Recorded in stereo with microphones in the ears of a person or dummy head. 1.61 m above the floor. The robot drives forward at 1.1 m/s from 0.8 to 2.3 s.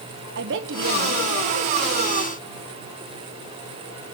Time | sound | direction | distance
0.3 | a woman speaking | 65° right (ahead or behind) | 1.5 m